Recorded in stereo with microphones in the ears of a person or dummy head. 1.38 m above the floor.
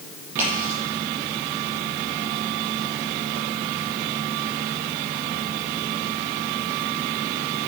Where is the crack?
10° right (ahead or behind), 6.5 m.